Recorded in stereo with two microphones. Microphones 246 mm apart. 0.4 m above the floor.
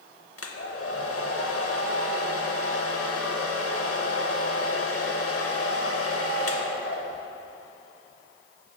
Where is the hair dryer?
65° left (ahead or behind), 0.6 m.